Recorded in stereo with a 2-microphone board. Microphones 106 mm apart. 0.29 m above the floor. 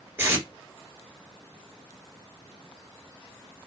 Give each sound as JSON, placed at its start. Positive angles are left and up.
{"t": 0.2, "sound": "tape being pulled", "side_deg": -20, "distance_m": 1.4}